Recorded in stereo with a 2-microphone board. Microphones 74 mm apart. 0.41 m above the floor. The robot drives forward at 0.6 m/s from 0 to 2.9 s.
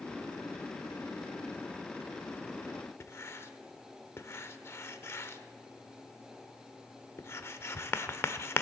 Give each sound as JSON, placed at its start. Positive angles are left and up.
{"t": 3.0, "sound": "writing", "side_deg": 35, "distance_m": 1.1}